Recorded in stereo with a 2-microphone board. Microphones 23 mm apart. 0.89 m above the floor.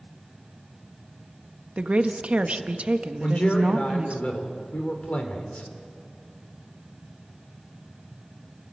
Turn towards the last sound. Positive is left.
turn(degrees=60)  # may be behind; listen again after turning